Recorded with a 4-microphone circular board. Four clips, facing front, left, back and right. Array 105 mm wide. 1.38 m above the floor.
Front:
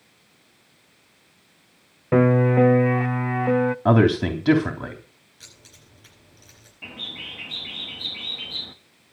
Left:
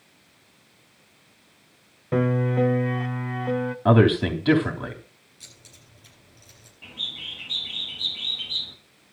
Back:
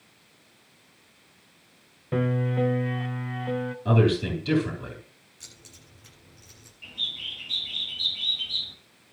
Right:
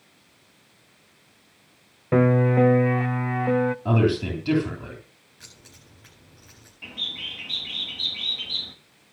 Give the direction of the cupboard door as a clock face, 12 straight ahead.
No cupboard door in this recording.